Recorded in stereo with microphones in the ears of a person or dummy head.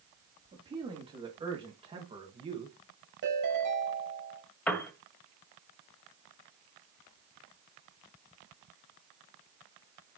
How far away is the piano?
About 1.8 m.